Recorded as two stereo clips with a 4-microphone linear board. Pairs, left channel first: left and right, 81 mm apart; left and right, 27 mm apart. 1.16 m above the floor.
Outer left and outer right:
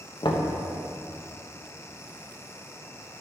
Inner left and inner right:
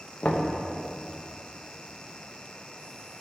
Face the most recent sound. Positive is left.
turn(degrees=80)